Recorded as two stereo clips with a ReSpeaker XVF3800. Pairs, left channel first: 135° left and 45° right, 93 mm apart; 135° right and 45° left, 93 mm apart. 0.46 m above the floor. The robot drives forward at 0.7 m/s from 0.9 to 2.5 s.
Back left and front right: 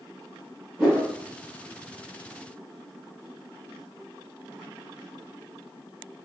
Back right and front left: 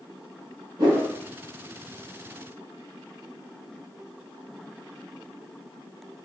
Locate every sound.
0.8 s a whoosh: 30° left, 2 m